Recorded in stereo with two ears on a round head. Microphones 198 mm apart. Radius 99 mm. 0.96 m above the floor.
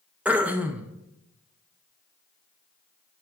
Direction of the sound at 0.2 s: 5° right (ahead or behind).